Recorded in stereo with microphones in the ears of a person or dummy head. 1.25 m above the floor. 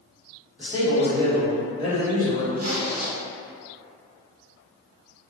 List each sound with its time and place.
0.6 s a man speaking: 5° right (ahead or behind), 1.4 m; by 2.5 s 50° left (ahead or behind), 0.8 m
2.6 s a zipper: 40° right (ahead or behind), 0.5 m